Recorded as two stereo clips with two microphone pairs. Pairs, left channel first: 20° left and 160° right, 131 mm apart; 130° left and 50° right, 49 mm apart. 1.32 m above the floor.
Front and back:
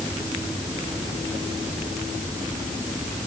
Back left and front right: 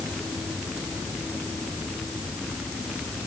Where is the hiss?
No hiss in this recording.